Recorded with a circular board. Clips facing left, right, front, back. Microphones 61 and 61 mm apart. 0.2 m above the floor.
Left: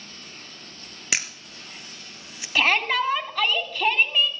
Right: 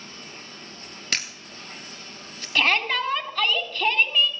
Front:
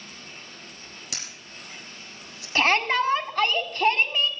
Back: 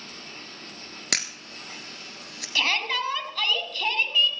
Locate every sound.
0.0 s running water: 150° right, 5.5 m
1.1 s a camera shutter: 170° left, 1.7 m
2.5 s a shout: 15° left, 1.8 m